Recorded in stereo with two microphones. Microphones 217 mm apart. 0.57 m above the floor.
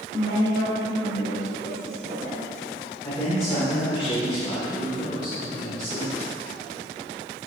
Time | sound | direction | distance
0.1 | a woman speaking | 45° left (ahead or behind) | 1.7 m
3.0 | a man speaking | 20° left (ahead or behind) | 1.6 m